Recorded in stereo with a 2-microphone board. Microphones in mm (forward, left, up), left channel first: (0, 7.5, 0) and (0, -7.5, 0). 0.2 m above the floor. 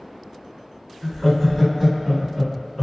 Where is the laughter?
10° left (ahead or behind), 1.4 m; by 2.8 s 5° left (ahead or behind), 1.5 m.